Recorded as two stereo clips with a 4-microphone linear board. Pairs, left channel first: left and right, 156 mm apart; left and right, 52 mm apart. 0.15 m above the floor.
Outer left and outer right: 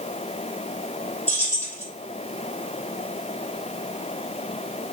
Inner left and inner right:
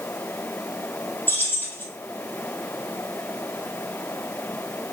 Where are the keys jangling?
40° left (ahead or behind), 1.9 m.